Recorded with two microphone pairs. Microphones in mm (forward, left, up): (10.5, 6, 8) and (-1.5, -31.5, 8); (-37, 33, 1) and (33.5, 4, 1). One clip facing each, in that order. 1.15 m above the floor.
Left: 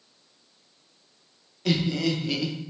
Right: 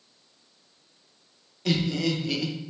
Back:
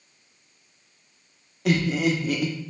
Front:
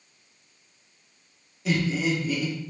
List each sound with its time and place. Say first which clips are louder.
1.6 s laughter: left 1 dB, back 3 dB; 160° left, 0.8 m